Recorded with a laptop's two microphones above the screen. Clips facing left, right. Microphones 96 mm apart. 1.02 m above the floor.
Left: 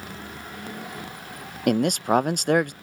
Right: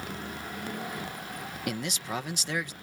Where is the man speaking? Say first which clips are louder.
Left 14 dB; 50° left (ahead or behind).